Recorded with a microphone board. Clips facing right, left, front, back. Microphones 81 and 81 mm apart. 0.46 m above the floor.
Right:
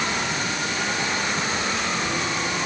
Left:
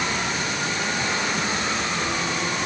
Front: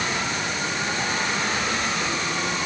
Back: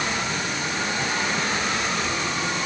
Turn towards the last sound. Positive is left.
No sound to turn to.